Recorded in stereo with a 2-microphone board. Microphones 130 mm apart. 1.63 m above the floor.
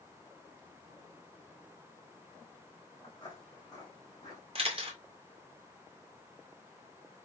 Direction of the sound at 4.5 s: 50° right (ahead or behind).